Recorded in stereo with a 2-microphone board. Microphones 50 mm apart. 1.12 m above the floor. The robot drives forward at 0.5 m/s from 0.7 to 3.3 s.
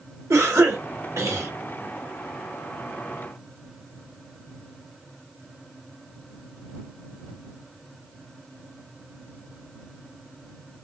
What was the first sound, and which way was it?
A cough, 65° right (ahead or behind).